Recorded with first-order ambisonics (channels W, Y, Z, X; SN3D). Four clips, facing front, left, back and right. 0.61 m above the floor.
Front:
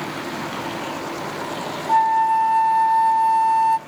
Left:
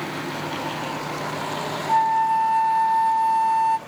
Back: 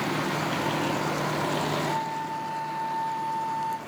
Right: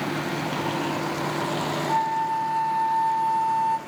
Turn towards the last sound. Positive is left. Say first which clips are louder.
# left 7 dB, front 13 dB
turn(degrees=25)